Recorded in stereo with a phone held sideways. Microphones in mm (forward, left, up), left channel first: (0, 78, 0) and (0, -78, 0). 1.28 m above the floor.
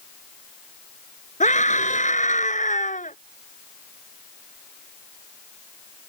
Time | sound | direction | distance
1.4 | a scream | 50° left (ahead or behind) | ?